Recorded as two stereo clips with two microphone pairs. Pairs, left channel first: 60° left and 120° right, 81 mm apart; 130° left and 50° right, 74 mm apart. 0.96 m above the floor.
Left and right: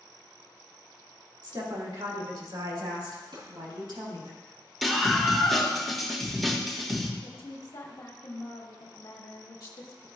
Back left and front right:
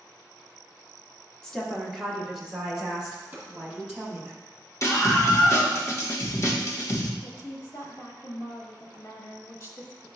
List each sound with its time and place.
1.4 s a woman speaking: 150° right, 1.4 m; by 4.3 s 125° right, 4 m
3.3 s a drawer: 120° right, 3 m
4.8 s a scream: 150° left, 1.2 m
7.2 s a woman speaking: 90° left, 1.2 m